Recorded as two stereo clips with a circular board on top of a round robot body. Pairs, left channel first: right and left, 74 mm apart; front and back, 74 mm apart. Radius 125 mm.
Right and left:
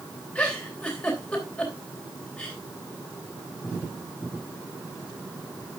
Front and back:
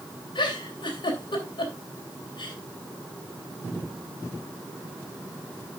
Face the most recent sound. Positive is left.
turn(degrees=-15)